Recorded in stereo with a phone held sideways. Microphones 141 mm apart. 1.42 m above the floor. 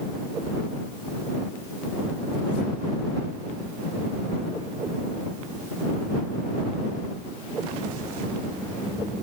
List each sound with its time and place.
Only background noise.